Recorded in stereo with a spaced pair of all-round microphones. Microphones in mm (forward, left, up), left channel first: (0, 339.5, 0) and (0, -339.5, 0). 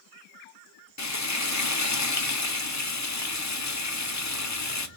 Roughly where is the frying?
Left.